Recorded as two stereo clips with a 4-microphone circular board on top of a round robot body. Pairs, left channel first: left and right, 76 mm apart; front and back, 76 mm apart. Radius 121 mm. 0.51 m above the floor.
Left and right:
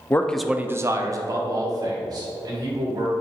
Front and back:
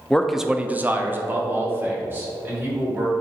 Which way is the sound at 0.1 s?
70° left.